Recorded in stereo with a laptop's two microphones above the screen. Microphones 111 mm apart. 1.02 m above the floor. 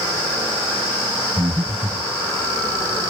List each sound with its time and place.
1.4 s breathing: 25° right (ahead or behind), 1.5 m